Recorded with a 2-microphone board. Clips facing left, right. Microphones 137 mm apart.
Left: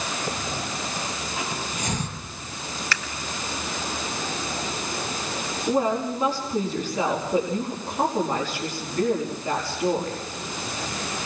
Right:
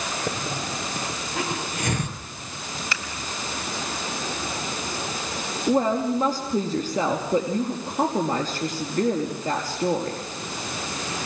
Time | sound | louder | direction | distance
0.3 | a hiss | right 1 dB | 60° right (ahead or behind) | 4 m
2.9 | scissors | left 3 dB | 20° right (ahead or behind) | 2.5 m
5.7 | a woman speaking | right 2 dB | 40° right (ahead or behind) | 5 m